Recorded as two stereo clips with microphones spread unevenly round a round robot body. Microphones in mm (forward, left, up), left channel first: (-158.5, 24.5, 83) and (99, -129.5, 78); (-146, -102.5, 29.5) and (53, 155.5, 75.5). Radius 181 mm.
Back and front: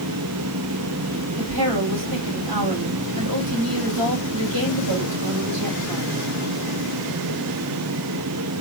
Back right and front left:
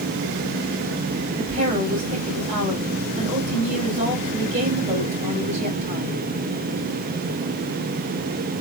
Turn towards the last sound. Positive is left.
turn(degrees=-20)